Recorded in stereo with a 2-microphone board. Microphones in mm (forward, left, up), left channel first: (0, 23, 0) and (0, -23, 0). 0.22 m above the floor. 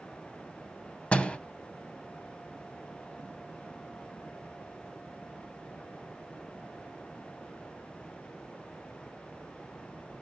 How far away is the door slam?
About 0.8 m.